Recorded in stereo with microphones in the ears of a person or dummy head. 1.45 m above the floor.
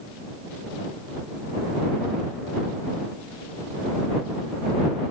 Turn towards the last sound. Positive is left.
No sound to turn to.